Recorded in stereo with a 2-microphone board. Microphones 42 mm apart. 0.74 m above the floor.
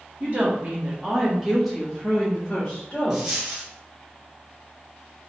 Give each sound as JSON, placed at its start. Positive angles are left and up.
{"t": 0.2, "sound": "a woman speaking", "side_deg": -40, "distance_m": 1.5}
{"t": 3.1, "sound": "a dropped coin", "side_deg": -15, "distance_m": 1.8}